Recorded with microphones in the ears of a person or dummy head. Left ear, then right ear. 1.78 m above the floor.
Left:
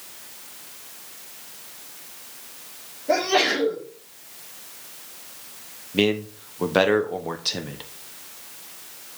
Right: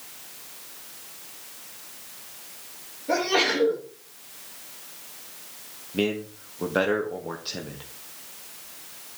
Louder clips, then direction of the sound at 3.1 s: Left 3 dB; 10° left (ahead or behind).